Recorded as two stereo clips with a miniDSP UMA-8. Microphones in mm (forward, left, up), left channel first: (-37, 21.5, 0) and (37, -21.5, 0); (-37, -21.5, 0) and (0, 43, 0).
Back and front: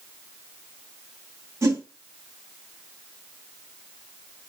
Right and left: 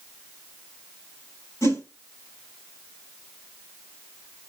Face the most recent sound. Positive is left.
turn(degrees=-80)